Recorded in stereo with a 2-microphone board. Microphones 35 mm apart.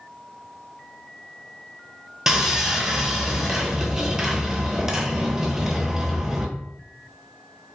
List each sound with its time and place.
2.3 s sawing: 15° right (ahead or behind), 0.5 m